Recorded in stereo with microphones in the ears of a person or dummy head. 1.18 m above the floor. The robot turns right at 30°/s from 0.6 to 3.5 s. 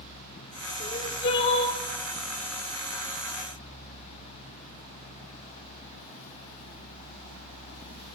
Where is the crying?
45° left (ahead or behind), 1.3 m; by 1.8 s 75° left (ahead or behind), 1.3 m.